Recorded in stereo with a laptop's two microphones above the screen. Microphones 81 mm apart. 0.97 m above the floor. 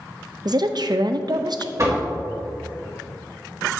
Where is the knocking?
45° right (ahead or behind), 1.7 m.